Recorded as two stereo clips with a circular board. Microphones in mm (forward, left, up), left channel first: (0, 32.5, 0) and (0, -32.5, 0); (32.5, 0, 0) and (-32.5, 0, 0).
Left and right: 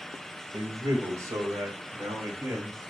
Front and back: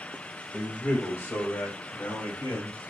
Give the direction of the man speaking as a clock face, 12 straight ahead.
2 o'clock.